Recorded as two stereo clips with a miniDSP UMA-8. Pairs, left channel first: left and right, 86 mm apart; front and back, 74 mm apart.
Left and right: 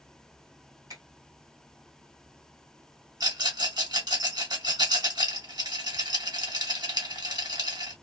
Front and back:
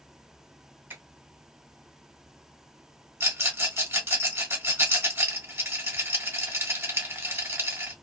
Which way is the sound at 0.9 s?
120° right.